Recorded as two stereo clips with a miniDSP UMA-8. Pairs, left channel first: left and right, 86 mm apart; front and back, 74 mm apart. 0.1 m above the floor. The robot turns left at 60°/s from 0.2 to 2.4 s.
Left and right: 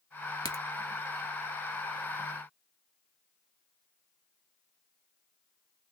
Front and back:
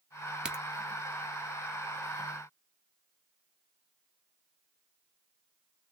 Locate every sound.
0.5 s a crack: 110° left, 1.1 m; by 0.6 s 95° left, 1.1 m